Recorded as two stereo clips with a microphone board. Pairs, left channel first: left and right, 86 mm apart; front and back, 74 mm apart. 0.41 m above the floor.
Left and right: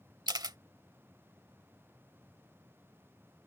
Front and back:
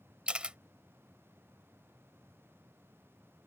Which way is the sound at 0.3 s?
105° right.